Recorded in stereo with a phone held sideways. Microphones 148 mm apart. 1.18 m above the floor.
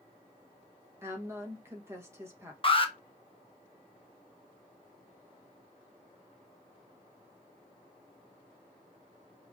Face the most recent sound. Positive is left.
turn(degrees=35)  # may be behind; listen again after turning